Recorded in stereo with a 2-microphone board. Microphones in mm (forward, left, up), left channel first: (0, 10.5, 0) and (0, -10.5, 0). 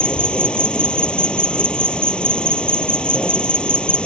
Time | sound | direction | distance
0.0 | an insect | 60° left (ahead or behind) | ?